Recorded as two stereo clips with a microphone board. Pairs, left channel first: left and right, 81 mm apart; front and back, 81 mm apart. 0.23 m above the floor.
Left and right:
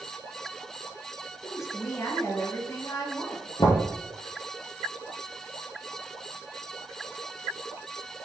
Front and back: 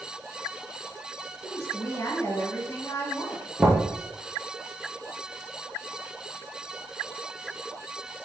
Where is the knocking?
100° left, 3 m.